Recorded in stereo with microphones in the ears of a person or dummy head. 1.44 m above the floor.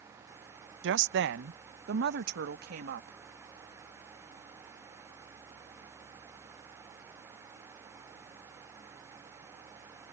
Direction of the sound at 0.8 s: 70° right (ahead or behind).